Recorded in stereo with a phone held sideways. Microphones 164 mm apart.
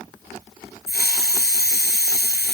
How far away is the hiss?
About 7.5 m.